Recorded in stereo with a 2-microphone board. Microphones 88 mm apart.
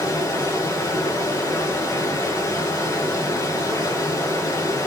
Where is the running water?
45° left (ahead or behind), 2.5 m.